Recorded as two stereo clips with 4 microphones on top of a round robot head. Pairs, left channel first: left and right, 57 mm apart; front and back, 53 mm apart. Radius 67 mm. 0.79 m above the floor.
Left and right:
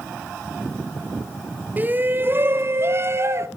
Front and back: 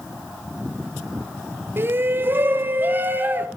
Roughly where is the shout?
Behind right.